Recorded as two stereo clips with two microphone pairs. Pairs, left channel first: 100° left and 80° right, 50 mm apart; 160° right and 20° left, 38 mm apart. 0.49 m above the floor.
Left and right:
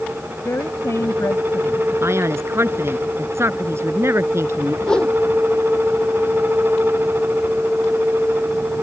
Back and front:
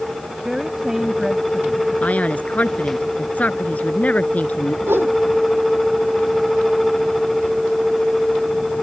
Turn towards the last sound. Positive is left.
turn(degrees=30)